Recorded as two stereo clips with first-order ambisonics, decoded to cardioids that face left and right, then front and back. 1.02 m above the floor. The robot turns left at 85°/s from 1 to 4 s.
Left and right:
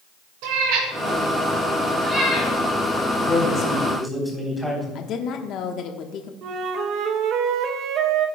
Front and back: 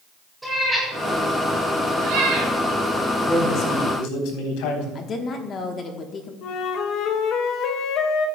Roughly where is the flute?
Ahead right.